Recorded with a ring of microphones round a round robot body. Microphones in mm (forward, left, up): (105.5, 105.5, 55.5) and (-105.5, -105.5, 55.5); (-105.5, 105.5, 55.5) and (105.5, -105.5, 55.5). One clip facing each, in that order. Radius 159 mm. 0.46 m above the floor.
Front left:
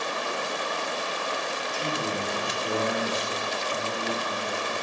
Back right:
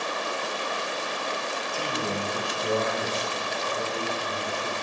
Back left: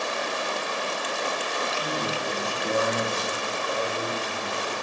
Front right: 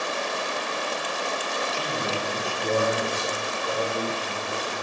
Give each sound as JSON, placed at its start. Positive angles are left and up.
{"t": 1.7, "sound": "a man speaking", "azimuth_deg": -90, "distance_m": 3.0}